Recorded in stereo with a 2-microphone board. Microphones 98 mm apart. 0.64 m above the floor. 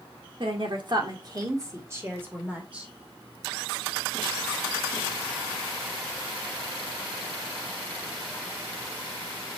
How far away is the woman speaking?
About 1.9 m.